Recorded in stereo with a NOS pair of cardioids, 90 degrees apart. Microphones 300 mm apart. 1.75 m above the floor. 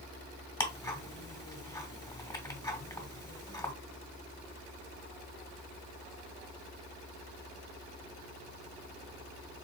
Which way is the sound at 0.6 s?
15° left.